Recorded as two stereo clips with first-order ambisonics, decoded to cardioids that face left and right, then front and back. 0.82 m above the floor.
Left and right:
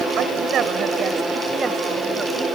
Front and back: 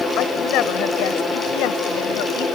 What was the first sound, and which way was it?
A woman speaking, 40° right.